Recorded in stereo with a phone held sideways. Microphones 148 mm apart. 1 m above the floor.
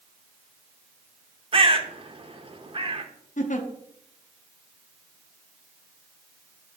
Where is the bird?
40° right (ahead or behind), 0.7 m.